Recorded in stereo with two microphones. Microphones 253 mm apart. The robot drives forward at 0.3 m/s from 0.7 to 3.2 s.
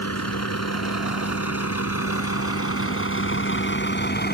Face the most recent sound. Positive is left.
turn(degrees=40)  # may be behind; listen again after turning